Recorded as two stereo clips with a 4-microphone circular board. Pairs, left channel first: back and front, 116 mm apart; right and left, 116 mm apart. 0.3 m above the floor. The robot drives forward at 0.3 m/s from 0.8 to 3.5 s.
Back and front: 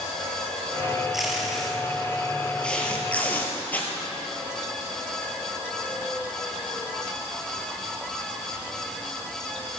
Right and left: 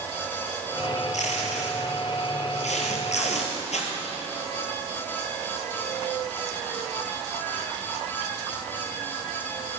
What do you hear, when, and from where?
1.1 s tape being pulled: 90° right, 2.5 m; by 3.9 s 105° right, 2.5 m